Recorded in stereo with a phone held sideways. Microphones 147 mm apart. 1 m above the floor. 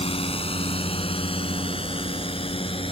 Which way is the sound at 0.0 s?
40° left (ahead or behind).